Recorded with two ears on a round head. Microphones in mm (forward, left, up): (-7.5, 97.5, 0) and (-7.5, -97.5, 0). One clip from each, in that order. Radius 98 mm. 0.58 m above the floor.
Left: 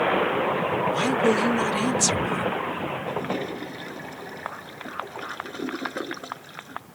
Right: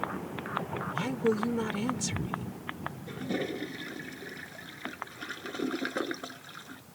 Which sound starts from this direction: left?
A woman speaking, at 0.9 s.